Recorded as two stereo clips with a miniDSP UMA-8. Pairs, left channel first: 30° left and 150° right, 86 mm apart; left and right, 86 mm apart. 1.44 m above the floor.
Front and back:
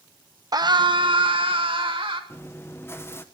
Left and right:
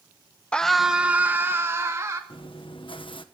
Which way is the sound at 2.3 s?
90° left.